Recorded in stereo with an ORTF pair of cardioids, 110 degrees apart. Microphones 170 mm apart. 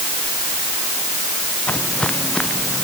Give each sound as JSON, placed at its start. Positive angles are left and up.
{"t": 1.7, "sound": "footsteps", "azimuth_deg": 10}